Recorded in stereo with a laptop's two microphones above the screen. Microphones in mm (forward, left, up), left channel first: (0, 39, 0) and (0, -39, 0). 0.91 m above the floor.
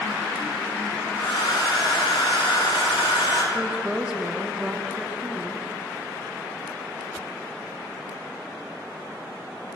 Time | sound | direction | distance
1.2 | a hair dryer | 75° left (ahead or behind) | 1.6 m
3.5 | a woman speaking | 10° right (ahead or behind) | 0.6 m